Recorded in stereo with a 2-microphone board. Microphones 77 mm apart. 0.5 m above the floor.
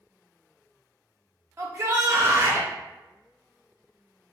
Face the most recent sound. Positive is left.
turn(degrees=-35)  # may be behind; listen again after turning